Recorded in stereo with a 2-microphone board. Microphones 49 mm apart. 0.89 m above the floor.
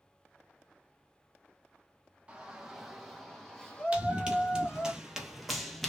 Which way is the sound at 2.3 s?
20° right (ahead or behind).